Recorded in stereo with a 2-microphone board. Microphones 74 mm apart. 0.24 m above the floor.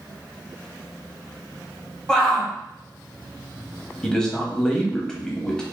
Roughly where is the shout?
Centre.